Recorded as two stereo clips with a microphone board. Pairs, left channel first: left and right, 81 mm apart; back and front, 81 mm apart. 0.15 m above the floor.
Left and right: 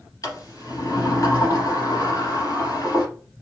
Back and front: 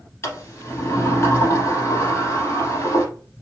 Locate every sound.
0.2 s a sliding door: 130° left, 2.5 m